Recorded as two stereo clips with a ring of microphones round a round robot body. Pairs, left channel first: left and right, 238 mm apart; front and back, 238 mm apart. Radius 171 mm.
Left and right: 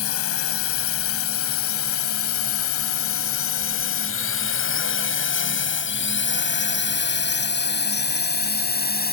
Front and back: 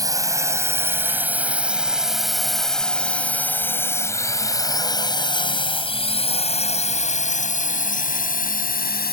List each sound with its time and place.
0.0 s a drone: 105° left; by 9.1 s 45° left